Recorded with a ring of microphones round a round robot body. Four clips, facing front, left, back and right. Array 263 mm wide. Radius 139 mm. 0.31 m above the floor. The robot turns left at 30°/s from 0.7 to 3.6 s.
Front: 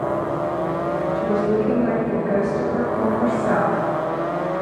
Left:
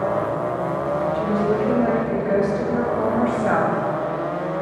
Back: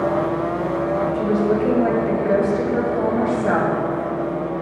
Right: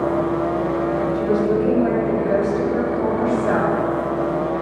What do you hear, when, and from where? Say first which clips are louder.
1.1 s a woman speaking: right 3 dB, front 1 dB; 160° right, 2 m; by 3.7 s 125° left, 2 m